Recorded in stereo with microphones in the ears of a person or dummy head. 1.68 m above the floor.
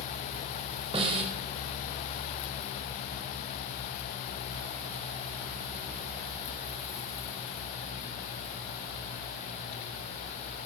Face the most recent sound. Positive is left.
turn(degrees=-25)  # may be behind; listen again after turning